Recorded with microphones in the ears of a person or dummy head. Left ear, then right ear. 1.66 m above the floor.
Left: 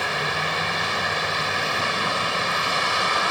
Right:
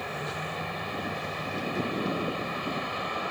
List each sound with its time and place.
0.0 s a vehicle: 55° left (ahead or behind)